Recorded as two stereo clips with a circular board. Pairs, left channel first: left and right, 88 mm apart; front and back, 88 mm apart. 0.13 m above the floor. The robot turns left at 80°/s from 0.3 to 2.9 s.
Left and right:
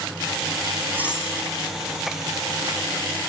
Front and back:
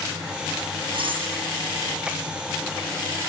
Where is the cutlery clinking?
155° right, 4.5 m; by 1.3 s 175° left, 4.5 m.